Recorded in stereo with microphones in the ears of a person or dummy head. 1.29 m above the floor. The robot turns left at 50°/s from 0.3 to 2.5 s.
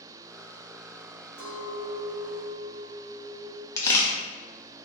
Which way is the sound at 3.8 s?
15° left (ahead or behind).